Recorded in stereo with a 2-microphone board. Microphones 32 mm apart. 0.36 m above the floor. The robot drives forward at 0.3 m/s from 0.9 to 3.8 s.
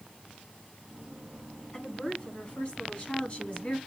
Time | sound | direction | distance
1.7 | a woman speaking | 35° left (ahead or behind) | 3.5 m